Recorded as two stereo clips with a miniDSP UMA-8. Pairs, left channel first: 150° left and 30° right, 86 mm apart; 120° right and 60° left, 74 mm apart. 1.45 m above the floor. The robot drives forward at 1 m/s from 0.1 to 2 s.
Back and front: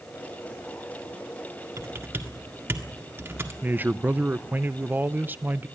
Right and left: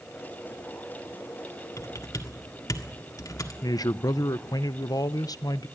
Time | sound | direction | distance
1.8 | typing on a keyboard | 80° right | 1.7 m
3.6 | a man speaking | 95° right | 0.6 m